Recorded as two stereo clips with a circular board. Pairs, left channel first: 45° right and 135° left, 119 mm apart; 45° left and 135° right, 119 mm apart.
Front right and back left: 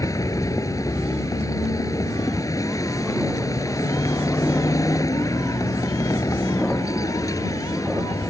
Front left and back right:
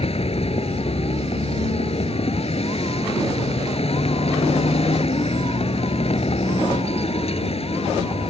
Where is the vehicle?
15° left.